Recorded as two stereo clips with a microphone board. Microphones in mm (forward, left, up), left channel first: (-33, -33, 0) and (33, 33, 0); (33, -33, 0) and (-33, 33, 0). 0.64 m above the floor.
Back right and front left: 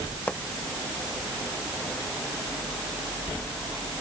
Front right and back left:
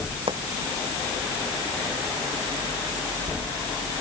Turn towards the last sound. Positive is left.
turn(degrees=150)